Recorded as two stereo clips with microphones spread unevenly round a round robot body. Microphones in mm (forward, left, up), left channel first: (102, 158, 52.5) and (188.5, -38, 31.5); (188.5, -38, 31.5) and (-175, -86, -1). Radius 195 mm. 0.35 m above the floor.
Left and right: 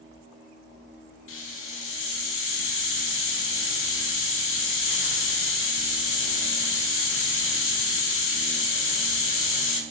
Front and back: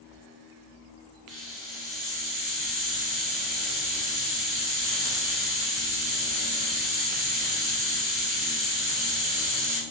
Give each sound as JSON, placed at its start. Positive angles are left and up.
{"t": 1.3, "sound": "a hiss", "azimuth_deg": 95, "distance_m": 0.6}